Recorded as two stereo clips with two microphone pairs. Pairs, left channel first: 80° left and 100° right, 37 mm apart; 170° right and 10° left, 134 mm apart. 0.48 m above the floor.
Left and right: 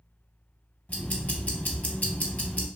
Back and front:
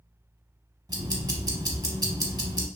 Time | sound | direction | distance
0.9 | ticking | 55° left | 0.7 m